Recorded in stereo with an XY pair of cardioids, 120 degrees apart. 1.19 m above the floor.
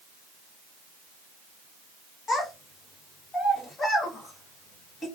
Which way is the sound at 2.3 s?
30° left.